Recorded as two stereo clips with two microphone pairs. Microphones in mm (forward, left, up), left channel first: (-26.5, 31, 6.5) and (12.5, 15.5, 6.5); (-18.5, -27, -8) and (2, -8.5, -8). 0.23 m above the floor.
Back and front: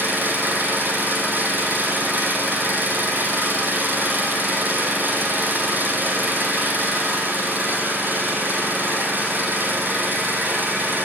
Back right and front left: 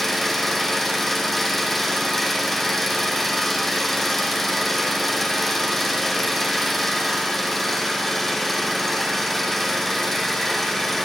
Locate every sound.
0.0 s an engine running: 50° right, 4 m